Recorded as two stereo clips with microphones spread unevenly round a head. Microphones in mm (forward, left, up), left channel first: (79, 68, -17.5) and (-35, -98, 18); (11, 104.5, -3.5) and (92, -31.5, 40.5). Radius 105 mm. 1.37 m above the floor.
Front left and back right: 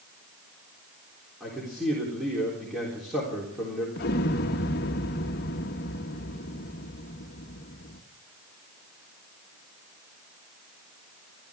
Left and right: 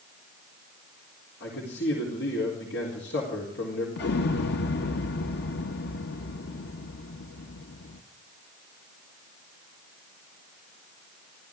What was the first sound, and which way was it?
A man speaking, 150° left.